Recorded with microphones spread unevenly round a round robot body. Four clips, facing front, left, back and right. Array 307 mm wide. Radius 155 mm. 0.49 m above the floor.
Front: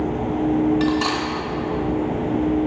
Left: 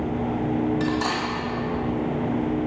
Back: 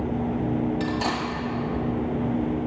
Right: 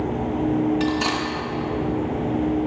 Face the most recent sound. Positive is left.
turn(degrees=-175)